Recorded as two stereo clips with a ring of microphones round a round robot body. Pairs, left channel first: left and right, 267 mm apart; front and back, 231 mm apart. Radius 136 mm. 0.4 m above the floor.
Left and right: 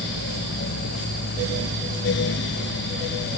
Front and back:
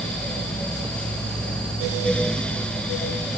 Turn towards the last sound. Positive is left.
No sound to turn to.